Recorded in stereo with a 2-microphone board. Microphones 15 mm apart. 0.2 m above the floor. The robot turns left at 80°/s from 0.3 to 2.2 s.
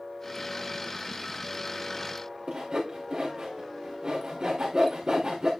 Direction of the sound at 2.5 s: 75° right (ahead or behind).